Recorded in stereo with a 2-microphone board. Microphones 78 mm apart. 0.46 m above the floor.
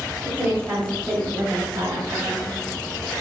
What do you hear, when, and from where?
0.2 s a woman speaking: 10° right (ahead or behind), 3 m; by 2.5 s 60° right (ahead or behind), 3 m